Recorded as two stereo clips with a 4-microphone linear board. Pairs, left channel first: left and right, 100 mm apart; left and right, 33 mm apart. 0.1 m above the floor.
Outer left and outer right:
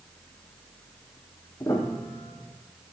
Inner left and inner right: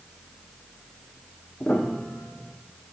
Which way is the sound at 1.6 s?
30° left (ahead or behind).